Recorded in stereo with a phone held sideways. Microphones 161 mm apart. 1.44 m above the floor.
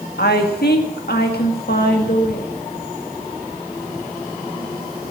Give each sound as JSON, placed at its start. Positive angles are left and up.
{"t": 0.2, "sound": "a woman speaking", "side_deg": 80, "distance_m": 1.9}